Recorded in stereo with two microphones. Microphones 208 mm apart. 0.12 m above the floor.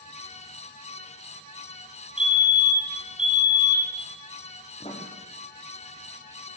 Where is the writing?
25° left (ahead or behind), 3 m.